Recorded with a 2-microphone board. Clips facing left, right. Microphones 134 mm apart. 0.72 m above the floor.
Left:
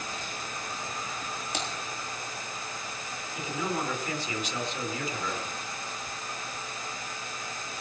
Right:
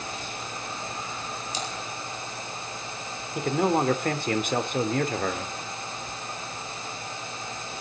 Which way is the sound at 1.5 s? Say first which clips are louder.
Even; 60° left (ahead or behind).